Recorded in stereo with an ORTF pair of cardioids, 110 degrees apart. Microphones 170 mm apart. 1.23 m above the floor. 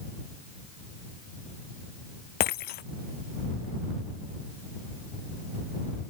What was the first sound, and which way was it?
Breaking glass, 65° left.